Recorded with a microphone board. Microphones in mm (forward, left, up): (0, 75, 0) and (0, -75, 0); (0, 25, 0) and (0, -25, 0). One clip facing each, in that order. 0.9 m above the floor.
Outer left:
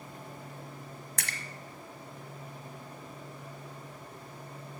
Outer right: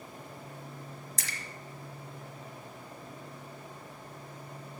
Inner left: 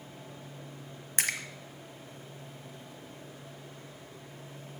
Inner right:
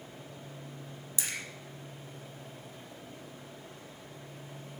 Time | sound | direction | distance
1.2 | a splash | 55° left (ahead or behind) | 1.2 m